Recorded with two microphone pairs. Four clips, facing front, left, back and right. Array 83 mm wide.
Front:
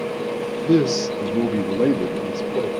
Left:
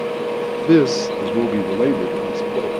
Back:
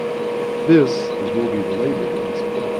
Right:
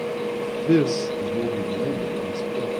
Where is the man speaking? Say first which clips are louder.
Left 6 dB, back 4 dB; 145° left, 0.7 m; by 2.7 s 85° left, 2.0 m.